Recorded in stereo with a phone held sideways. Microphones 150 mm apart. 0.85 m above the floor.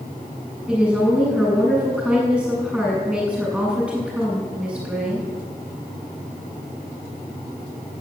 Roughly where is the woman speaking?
Centre.